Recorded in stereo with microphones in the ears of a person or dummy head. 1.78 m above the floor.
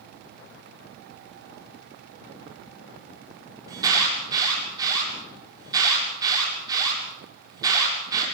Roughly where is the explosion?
No explosion in this recording.